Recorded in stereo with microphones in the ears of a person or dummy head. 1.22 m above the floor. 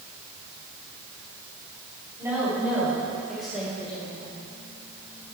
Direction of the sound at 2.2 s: 15° right (ahead or behind).